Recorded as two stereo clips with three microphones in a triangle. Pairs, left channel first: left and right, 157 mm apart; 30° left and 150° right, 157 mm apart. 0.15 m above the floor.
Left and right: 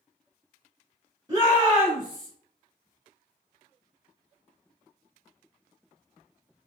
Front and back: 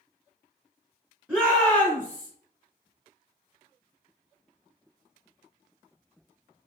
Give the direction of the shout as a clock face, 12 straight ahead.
3 o'clock.